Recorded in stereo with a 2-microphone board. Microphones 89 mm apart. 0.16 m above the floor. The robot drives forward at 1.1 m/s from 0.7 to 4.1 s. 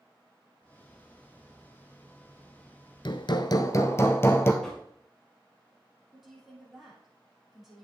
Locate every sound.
3.0 s hammering: 60° left (ahead or behind), 0.7 m; by 4.5 s 30° left (ahead or behind), 1.2 m
4.6 s knocking: 10° left (ahead or behind), 3.5 m
6.1 s a woman speaking: centre (ahead or behind), 4.5 m